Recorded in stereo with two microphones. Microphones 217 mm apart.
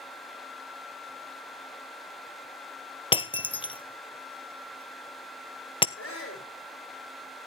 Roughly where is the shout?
Left.